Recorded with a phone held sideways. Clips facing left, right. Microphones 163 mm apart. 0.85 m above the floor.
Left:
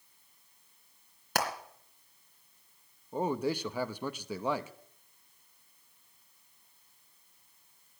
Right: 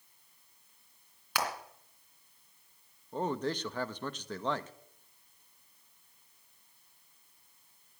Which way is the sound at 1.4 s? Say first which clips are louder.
Left 3 dB; 50° left (ahead or behind).